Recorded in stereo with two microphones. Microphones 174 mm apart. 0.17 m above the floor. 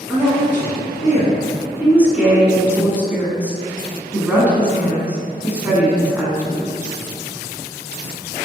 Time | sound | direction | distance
0.1 | a man speaking | 15° right (ahead or behind) | 1.3 m
1.8 | a woman speaking | 10° right (ahead or behind) | 1.0 m